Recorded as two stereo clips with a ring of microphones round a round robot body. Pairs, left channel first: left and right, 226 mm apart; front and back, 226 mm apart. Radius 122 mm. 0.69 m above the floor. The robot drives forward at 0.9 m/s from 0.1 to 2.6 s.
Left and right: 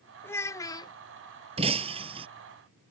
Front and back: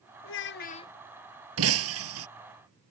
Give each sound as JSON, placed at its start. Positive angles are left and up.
{"t": 0.2, "sound": "a child speaking", "azimuth_deg": 10}
{"t": 1.6, "sound": "breaking glass", "azimuth_deg": -160}